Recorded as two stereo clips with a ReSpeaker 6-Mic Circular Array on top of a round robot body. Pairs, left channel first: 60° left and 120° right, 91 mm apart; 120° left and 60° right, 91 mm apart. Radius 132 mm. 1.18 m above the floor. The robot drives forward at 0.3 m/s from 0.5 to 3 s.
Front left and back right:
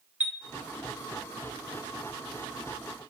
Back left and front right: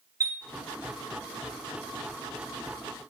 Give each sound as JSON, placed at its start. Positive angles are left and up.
{"t": 0.2, "sound": "a chime", "azimuth_deg": -60, "distance_m": 0.5}